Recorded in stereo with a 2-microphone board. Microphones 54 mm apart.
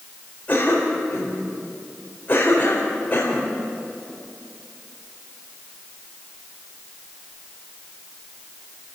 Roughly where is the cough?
Left.